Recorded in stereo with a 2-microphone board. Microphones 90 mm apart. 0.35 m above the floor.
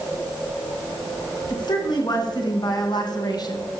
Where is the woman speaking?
50° left (ahead or behind), 5 m.